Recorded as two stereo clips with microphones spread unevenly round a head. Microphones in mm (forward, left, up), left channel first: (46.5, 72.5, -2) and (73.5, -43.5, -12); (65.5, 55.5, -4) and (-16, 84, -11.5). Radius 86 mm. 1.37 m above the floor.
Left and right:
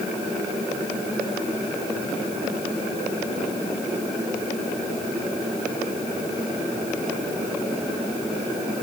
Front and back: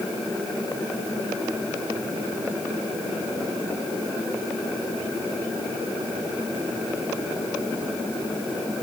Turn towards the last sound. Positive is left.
No sound to turn to.